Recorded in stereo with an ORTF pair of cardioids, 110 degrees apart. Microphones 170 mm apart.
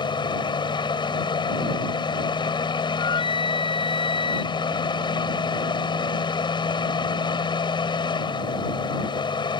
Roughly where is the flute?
Ahead left.